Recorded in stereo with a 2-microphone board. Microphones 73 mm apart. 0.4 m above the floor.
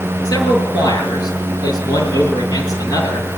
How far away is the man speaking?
About 8 m.